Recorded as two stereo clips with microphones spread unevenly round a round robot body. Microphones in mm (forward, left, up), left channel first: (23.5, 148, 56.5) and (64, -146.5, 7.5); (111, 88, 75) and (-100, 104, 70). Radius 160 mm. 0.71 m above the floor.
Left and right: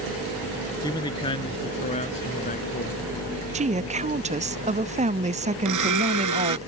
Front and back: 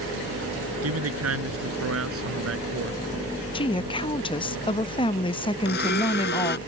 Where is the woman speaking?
55° right.